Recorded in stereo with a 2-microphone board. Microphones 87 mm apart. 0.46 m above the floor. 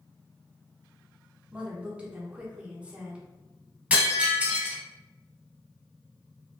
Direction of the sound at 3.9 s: 20° right (ahead or behind).